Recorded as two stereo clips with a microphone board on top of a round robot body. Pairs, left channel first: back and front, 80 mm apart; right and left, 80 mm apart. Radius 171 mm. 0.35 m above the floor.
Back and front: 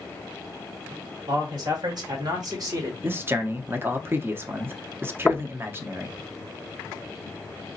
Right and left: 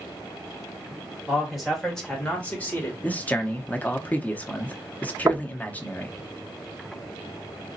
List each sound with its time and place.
1.3 s a man speaking: 5° left, 2 m; by 2.9 s 30° right, 1.9 m
3.0 s a man speaking: 35° right, 0.9 m
5.3 s knocking: 105° left, 0.6 m